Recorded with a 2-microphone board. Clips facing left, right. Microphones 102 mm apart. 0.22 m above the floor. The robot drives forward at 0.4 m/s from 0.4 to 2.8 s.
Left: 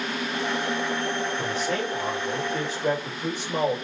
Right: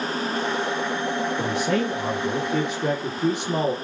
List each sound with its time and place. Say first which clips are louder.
1.4 s a man speaking: right 4 dB; 70° right (ahead or behind), 3.5 m